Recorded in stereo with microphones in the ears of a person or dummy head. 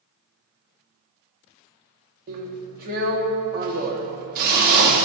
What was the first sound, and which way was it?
A drill, 50° right (ahead or behind).